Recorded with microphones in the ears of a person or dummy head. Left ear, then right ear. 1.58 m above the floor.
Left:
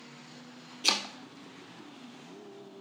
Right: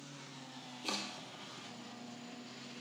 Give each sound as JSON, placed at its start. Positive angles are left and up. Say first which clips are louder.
{"t": 0.8, "sound": "chopping", "louder": "left 12 dB", "side_deg": 65, "distance_m": 0.6}